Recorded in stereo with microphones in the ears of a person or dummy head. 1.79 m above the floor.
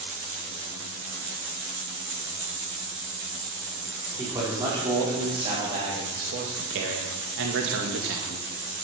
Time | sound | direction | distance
4.2 | a man speaking | 15° right (ahead or behind) | 4.5 m